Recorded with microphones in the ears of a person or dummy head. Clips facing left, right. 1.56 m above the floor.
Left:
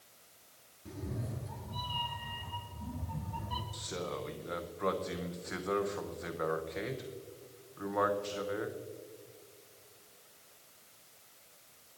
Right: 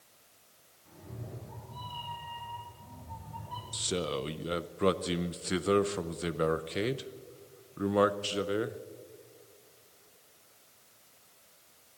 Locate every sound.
0.8 s a cat meowing: 70° left (ahead or behind), 4 m; by 3.6 s 55° left (ahead or behind), 3 m
3.7 s a man speaking: 40° right (ahead or behind), 0.6 m